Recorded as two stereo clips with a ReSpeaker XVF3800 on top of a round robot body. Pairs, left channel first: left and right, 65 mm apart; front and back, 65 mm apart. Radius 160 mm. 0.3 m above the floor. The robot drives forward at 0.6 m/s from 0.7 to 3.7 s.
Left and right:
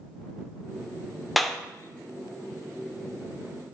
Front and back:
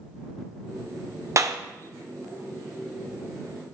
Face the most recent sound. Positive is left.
turn(degrees=180)